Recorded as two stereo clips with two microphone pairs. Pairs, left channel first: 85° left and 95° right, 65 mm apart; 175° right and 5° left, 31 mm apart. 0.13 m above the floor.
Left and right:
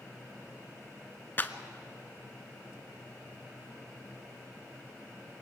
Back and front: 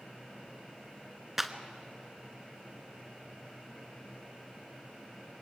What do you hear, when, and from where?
1.4 s a clap: 70° left, 0.9 m